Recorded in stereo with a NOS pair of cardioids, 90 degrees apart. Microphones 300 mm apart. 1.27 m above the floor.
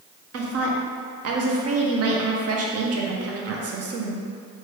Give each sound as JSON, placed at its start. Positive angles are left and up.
{"t": 0.3, "sound": "a woman speaking", "azimuth_deg": -55, "distance_m": 0.7}